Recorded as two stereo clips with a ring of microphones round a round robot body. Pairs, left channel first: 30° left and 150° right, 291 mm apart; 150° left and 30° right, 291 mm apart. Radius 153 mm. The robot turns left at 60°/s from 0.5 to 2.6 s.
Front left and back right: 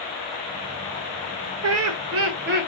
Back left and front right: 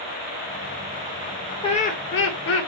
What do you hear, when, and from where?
1.6 s laughter: 140° right, 0.6 m; by 2.7 s 160° left, 0.6 m